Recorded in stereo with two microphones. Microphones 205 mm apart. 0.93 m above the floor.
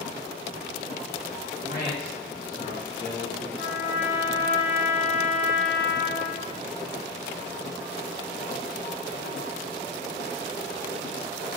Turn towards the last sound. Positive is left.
turn(degrees=75)  # may be behind; listen again after turning